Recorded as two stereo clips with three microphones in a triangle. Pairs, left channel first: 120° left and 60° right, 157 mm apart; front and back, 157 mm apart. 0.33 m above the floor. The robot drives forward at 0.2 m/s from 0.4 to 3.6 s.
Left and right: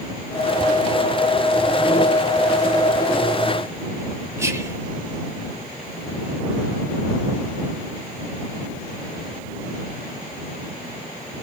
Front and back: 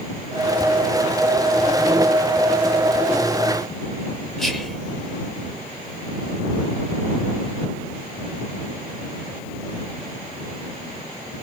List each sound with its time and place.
4.4 s whispering: 85° right, 0.8 m